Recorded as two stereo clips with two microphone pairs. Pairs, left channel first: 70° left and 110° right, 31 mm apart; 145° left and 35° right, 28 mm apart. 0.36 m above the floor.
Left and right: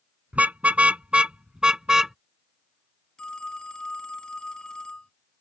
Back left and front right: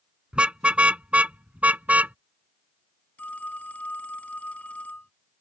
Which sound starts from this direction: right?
A car horn, at 0.3 s.